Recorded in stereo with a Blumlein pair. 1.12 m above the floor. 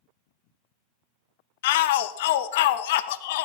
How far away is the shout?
About 0.7 m.